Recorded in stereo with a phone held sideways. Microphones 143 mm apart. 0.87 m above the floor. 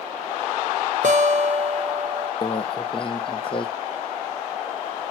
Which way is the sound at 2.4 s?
35° left (ahead or behind).